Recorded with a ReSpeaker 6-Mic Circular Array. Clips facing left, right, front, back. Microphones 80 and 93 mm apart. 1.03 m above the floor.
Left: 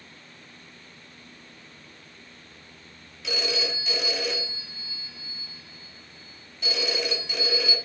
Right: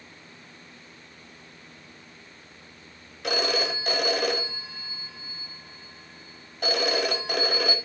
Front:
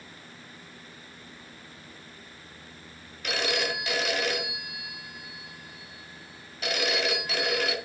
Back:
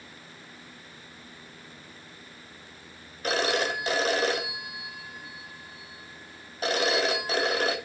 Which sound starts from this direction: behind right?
A phone ringing, at 3.2 s.